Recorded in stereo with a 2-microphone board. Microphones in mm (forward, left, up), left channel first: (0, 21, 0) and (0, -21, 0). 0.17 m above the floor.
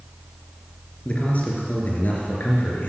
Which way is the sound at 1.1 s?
30° left (ahead or behind).